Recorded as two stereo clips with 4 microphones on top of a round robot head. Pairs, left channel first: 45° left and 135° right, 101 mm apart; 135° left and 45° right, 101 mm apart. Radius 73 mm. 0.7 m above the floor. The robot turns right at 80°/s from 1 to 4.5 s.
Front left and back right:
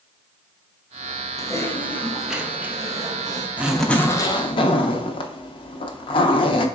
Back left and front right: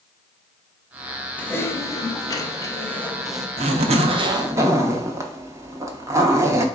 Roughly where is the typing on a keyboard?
Left.